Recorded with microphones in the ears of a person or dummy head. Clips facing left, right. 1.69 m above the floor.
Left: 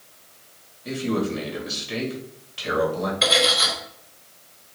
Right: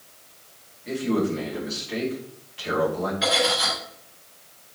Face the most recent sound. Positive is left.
turn(degrees=75)  # may be behind; listen again after turning